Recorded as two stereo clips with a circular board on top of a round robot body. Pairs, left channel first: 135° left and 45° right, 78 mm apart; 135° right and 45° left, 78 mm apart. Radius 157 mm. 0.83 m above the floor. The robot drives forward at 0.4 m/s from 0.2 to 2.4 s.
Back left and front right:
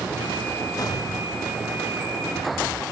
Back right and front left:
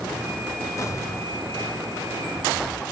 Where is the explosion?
175° left, 4 m.